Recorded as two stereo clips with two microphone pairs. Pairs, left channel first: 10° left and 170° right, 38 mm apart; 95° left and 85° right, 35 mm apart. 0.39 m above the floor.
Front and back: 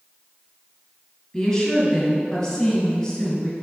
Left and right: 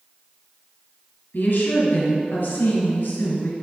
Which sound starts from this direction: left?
A woman speaking, at 1.3 s.